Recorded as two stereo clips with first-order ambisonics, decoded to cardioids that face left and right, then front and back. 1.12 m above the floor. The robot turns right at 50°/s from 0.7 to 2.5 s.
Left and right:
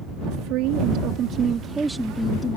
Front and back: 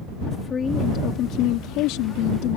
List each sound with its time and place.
0.3 s a woman speaking: 65° right; by 2.6 s 25° left